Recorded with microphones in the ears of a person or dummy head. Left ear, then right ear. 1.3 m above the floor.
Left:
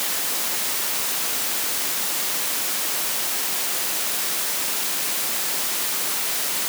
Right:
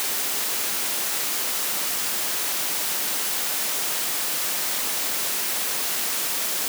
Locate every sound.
Only background noise.